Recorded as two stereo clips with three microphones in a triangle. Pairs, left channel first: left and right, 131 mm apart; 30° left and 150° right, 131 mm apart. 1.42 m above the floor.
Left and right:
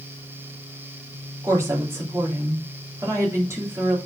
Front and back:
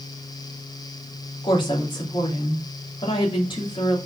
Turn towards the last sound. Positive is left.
turn(degrees=-20)